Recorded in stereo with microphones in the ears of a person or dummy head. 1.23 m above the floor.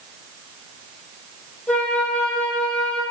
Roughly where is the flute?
Centre.